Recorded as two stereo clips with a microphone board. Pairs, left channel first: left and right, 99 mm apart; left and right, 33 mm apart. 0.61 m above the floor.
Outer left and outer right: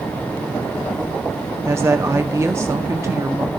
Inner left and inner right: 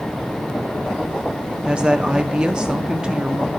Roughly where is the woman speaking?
Right.